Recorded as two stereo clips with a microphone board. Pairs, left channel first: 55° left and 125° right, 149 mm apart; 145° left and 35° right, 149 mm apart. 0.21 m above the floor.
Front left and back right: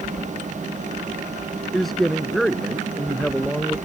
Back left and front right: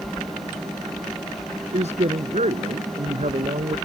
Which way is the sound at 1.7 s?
35° right.